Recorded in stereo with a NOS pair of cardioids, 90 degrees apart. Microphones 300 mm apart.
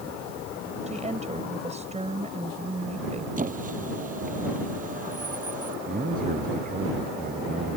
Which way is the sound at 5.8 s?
30° right.